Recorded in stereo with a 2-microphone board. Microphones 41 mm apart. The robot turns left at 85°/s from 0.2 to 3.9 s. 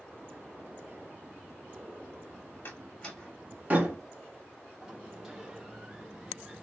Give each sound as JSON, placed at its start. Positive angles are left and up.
{"t": 2.6, "sound": "a door slam", "side_deg": 50, "distance_m": 1.4}
{"t": 4.8, "sound": "a sliding door", "side_deg": -20, "distance_m": 1.0}